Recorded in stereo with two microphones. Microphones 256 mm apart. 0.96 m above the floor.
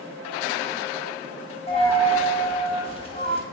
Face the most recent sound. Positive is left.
turn(degrees=25)  # may be behind; listen again after turning